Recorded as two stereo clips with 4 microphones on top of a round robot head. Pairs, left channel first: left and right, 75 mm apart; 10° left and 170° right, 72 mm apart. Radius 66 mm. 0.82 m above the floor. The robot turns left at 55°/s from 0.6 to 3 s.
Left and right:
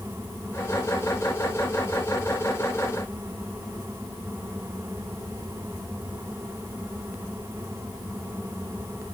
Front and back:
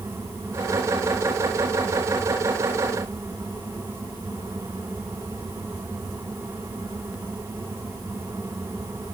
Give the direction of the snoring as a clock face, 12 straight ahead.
No snoring in this recording.